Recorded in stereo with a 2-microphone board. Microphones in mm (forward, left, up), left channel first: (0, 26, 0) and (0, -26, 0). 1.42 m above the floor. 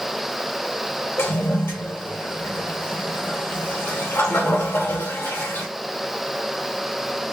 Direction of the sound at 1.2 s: 45° left (ahead or behind).